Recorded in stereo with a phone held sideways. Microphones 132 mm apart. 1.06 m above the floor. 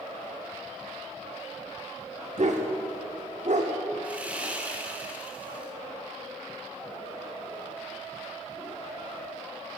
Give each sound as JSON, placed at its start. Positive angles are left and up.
{"t": 2.4, "sound": "a dog barking", "side_deg": -60, "distance_m": 1.2}
{"t": 4.0, "sound": "sawing", "side_deg": -10, "distance_m": 1.2}